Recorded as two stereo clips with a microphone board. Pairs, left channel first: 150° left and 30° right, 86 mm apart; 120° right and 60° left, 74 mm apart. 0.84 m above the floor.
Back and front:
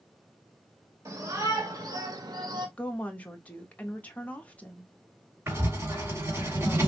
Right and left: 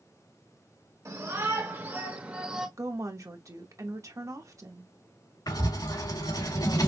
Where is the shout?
20° left, 2.0 m; by 2.7 s 20° right, 1.5 m.